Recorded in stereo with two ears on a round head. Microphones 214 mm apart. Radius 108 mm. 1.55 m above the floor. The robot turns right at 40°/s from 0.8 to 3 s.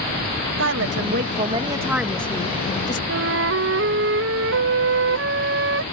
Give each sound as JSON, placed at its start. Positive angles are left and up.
{"t": 0.6, "sound": "a woman speaking", "azimuth_deg": -50}
{"t": 3.1, "sound": "a flute", "side_deg": -50}